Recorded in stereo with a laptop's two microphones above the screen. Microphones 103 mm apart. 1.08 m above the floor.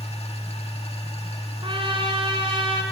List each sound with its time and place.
0.0 s a machine running: 80° left, 2 m
1.6 s a trumpet: 55° right (ahead or behind), 4.5 m